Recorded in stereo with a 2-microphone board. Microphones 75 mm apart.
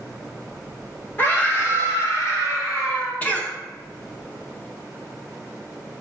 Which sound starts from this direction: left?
A scream, at 1.2 s.